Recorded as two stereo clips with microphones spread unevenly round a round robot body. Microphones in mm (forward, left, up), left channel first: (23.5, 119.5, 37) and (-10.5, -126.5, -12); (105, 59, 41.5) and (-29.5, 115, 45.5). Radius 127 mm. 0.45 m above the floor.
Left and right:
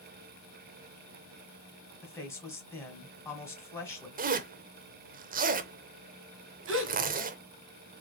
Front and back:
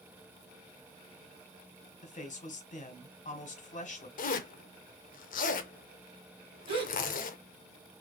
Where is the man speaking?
5° right, 1.9 m.